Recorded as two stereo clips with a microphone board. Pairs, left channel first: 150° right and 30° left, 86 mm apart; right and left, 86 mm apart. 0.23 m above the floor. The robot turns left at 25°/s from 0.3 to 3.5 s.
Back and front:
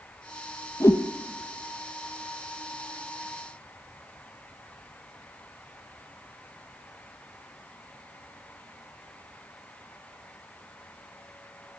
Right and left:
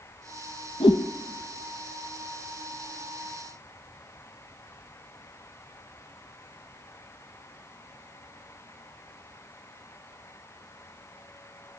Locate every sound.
0.8 s a whoosh: 90° right, 1.3 m; by 1.0 s 100° right, 1.3 m